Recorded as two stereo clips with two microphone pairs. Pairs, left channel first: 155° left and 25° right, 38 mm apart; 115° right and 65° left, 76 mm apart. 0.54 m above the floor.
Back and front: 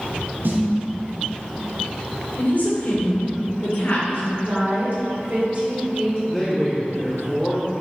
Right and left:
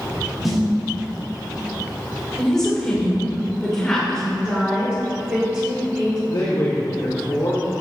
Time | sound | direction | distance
0.4 | a snare drum | 25° right | 1.1 m
2.4 | a woman speaking | 165° left | 1.7 m
4.4 | a woman speaking | straight ahead | 1.8 m
6.3 | a man speaking | 120° right | 1.1 m